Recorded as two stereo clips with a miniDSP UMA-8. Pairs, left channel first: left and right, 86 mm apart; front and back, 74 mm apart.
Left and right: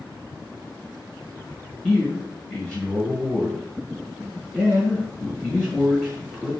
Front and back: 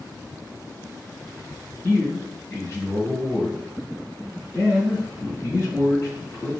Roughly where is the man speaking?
Ahead.